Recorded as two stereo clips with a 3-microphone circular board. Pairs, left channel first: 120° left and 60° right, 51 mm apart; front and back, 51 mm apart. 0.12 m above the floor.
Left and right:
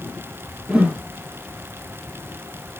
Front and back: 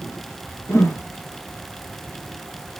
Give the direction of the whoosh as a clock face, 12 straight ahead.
12 o'clock.